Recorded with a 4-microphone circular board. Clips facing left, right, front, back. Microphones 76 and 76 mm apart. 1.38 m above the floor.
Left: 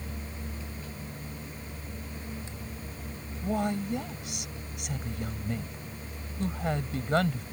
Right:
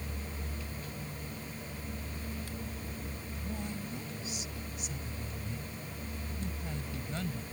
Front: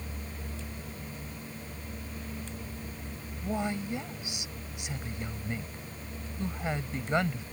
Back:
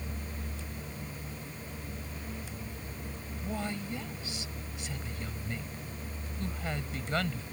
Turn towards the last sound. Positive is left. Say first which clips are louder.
# left 12 dB, front 4 dB
turn(degrees=70)